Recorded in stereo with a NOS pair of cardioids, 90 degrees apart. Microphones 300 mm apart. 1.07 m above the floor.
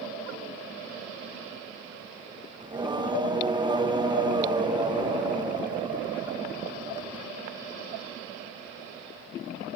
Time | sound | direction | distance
2.6 | singing | 15° right | 0.5 m